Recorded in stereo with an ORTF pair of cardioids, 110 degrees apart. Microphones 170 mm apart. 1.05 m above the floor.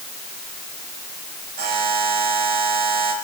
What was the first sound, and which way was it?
A buzzer, 70° right.